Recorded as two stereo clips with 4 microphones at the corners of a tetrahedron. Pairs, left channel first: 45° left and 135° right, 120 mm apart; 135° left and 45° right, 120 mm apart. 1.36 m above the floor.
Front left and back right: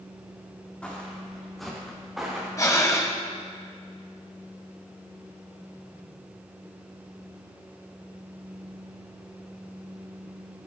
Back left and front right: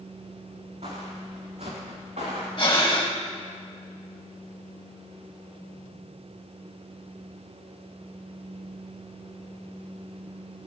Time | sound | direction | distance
0.8 | footsteps | 35° right | 4.5 m
2.6 | breathing | 100° left | 2 m